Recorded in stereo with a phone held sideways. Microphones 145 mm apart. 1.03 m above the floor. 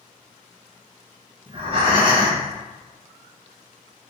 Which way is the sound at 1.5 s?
35° right (ahead or behind).